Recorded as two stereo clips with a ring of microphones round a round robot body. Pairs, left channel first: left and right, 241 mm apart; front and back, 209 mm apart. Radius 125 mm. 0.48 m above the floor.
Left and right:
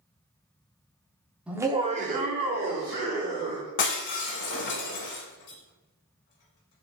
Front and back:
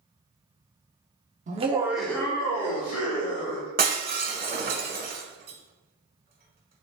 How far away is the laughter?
About 1.0 m.